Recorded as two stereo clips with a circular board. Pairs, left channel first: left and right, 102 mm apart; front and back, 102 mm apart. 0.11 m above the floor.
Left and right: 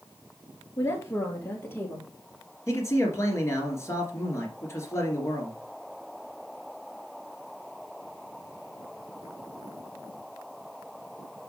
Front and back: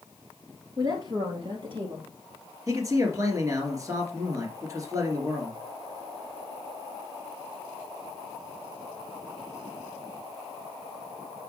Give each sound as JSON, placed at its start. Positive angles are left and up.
{"t": 0.8, "sound": "a woman speaking", "azimuth_deg": 145, "distance_m": 1.8}
{"t": 2.7, "sound": "a man speaking", "azimuth_deg": 140, "distance_m": 2.0}